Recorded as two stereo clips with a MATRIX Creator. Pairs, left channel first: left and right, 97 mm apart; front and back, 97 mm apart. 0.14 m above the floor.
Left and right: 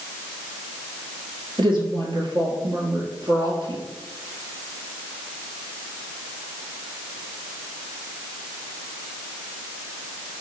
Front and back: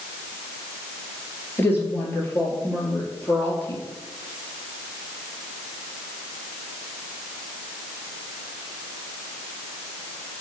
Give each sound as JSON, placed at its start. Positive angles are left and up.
{"t": 1.6, "sound": "a woman speaking", "azimuth_deg": -65, "distance_m": 3.0}